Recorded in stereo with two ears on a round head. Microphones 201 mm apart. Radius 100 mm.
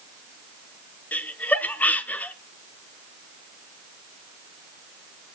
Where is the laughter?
5° left (ahead or behind), 0.7 m.